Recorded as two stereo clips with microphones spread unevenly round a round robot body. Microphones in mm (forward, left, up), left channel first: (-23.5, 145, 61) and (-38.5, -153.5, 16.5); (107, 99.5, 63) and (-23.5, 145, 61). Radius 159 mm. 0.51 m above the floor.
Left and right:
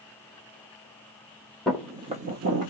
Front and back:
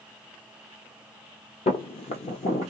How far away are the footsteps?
About 0.7 m.